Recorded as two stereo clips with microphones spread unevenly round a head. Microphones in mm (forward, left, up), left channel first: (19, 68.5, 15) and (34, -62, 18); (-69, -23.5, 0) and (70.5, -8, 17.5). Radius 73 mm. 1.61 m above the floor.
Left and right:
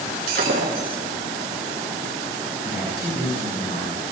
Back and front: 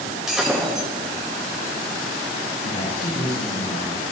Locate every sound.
0.3 s breaking glass: 75° right, 3.5 m
2.6 s a man speaking: 155° left, 9 m